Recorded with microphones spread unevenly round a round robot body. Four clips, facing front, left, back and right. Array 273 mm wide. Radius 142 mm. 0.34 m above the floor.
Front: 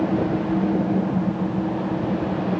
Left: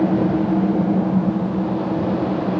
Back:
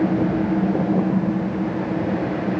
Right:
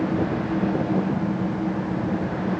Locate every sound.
Only background noise.